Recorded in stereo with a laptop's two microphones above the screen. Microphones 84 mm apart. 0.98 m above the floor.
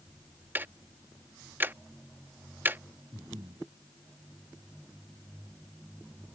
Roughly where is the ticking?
Right.